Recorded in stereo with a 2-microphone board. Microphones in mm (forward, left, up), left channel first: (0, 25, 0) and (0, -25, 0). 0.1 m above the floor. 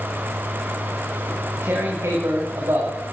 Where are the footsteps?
I don't hear footsteps.